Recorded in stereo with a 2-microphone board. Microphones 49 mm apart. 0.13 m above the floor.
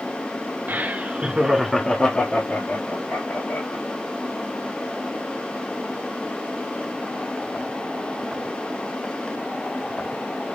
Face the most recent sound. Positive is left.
turn(degrees=65)  # may be behind; listen again after turning